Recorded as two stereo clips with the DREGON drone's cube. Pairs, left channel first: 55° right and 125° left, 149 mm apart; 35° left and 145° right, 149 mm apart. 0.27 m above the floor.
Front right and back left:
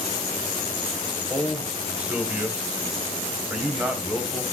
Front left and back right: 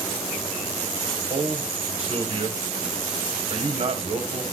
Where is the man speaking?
160° right, 1.5 m.